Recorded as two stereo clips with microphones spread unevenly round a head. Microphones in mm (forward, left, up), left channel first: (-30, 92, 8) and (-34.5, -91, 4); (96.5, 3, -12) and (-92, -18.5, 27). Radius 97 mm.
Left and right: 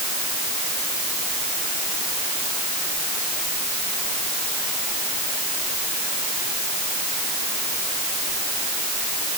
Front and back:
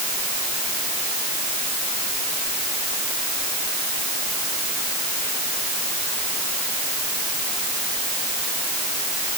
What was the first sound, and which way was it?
Only background noise.